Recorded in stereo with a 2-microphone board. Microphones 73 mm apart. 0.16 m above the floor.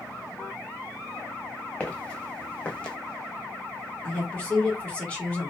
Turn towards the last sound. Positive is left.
turn(degrees=15)  # may be behind; listen again after turning